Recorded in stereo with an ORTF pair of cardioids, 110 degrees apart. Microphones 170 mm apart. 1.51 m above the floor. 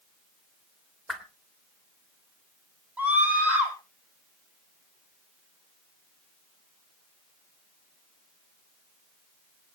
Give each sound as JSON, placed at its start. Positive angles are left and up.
{"t": 1.1, "sound": "a whoosh", "azimuth_deg": 0, "distance_m": 2.5}
{"t": 3.0, "sound": "a scream", "azimuth_deg": -10, "distance_m": 7.5}